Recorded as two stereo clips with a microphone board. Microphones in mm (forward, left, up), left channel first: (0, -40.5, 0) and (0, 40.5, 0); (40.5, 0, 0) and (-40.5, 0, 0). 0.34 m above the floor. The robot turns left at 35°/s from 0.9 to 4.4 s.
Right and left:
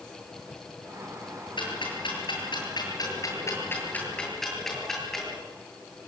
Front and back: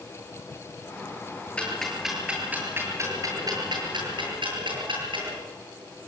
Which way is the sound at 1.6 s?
75° right.